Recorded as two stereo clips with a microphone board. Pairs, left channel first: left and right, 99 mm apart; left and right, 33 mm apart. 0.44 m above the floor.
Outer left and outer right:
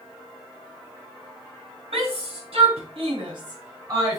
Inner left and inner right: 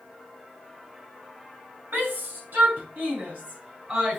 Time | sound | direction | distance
1.9 | a shout | 75° right (ahead or behind) | 2.5 m